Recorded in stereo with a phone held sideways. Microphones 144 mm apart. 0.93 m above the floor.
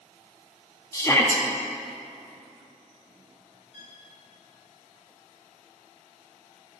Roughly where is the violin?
Right.